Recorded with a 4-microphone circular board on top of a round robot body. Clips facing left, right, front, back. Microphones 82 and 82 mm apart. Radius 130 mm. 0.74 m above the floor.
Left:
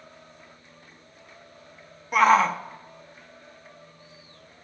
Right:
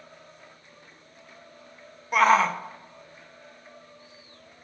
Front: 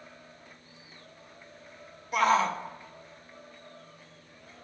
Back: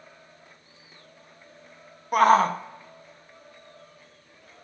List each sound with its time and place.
2.1 s a shout: straight behind, 1.4 m